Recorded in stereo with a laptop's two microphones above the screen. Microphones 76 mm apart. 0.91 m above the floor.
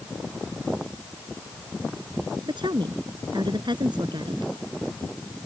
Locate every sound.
2.5 s a woman speaking: 80° right